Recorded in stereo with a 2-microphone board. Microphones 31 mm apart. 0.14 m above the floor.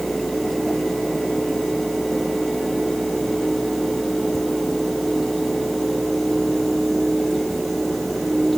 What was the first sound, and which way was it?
Only background noise.